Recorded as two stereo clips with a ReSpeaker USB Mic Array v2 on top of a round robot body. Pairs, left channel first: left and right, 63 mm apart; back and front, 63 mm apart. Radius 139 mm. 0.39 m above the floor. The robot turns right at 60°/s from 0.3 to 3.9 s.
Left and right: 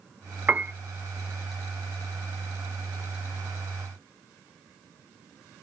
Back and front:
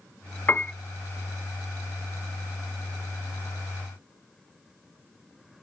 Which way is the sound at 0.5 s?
140° right.